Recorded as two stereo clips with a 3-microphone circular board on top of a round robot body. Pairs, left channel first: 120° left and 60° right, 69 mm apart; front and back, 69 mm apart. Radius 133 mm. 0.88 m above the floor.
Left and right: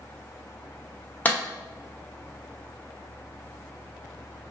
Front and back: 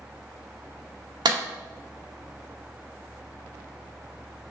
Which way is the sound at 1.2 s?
175° right.